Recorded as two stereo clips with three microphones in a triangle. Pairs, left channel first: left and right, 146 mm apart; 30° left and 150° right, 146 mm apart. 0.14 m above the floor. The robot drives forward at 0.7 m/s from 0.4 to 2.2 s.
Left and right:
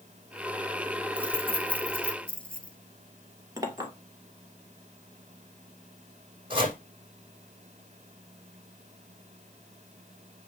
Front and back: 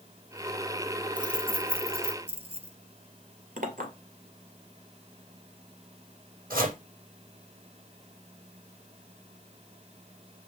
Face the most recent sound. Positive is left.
turn(degrees=-145)